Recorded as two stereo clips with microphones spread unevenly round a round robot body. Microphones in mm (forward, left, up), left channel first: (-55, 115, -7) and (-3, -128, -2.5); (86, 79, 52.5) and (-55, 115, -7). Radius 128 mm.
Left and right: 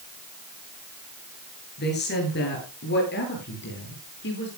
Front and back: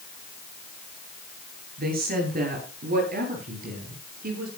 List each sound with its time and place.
1.8 s a woman speaking: 155° left, 9.5 m; by 4.5 s 150° left, 11.5 m